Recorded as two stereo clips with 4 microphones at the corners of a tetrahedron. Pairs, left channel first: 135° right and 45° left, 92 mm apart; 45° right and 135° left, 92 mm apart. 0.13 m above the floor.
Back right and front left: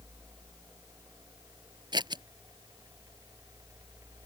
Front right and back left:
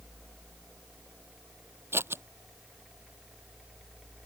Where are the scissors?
75° left.